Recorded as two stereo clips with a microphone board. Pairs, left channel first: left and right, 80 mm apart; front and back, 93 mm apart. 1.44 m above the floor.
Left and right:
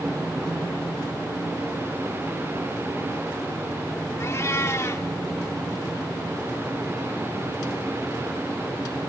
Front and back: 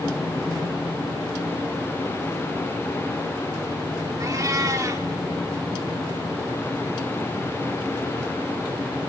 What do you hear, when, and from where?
4.2 s a cat meowing: 135° left, 1.6 m